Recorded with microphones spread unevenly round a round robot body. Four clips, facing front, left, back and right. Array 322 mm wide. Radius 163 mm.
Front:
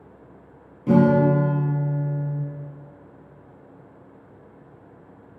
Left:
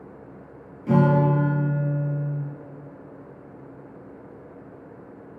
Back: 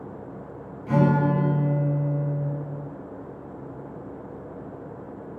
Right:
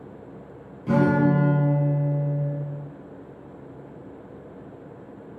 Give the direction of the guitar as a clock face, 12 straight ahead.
12 o'clock.